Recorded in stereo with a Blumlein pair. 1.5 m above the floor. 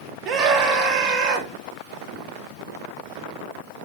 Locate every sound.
0.2 s a scream: 25° right, 3 m